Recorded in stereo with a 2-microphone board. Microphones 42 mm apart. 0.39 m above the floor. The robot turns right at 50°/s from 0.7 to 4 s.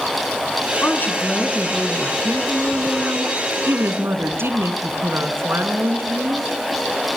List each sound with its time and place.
0.8 s a woman speaking: 125° left, 4 m; by 6.5 s 75° right, 4 m